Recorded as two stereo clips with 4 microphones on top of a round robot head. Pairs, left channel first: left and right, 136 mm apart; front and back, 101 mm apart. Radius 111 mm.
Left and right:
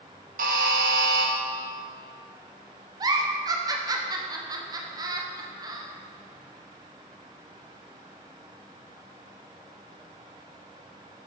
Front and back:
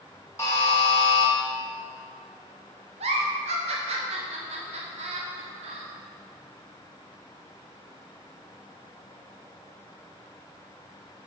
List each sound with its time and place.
0.4 s a buzzer: 75° right, 0.9 m
3.0 s a giggle: 150° right, 1.0 m